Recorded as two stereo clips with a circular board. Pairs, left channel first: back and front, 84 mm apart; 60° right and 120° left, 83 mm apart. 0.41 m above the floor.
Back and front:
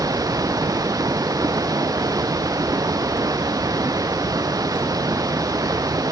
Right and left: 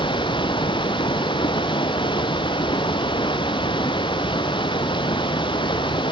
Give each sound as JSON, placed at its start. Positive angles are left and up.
{"t": 0.0, "sound": "running water", "azimuth_deg": -40}